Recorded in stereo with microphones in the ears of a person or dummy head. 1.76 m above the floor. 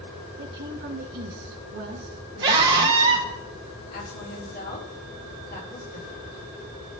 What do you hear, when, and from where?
0.4 s a woman speaking: 55° right (ahead or behind), 1.5 m
2.4 s a scream: 25° right (ahead or behind), 1.1 m
3.9 s a woman speaking: 50° left (ahead or behind), 3.5 m